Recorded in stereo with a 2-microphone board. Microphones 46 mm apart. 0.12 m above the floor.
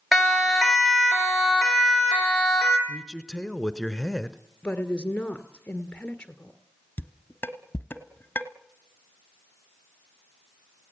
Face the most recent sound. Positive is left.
turn(degrees=40)  # may be behind; listen again after turning